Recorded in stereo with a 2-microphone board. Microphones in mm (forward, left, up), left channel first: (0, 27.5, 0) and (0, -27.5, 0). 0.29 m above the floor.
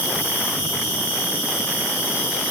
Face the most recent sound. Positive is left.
turn(degrees=-30)  # may be behind; listen again after turning